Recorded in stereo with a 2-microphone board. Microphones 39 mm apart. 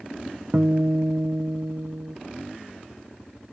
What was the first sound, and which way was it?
A guitar, 55° right (ahead or behind).